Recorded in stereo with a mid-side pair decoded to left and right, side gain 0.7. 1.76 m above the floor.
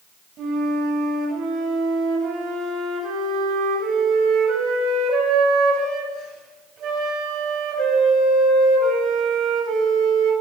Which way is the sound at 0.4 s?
45° right.